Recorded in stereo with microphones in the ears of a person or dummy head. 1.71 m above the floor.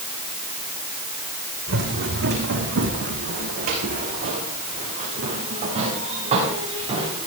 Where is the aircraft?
I don't hear an aircraft.